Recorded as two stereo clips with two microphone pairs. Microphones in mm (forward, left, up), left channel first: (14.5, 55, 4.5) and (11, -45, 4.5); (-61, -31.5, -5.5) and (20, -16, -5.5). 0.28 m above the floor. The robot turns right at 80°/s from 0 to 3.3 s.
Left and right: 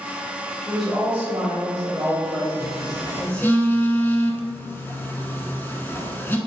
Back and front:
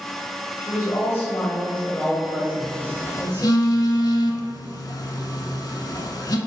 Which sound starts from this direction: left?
A phone buzzing, at 2.6 s.